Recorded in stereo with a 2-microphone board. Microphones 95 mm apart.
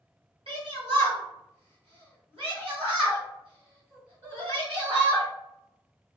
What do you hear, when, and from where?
0.5 s a shout: 70° right (ahead or behind), 1.4 m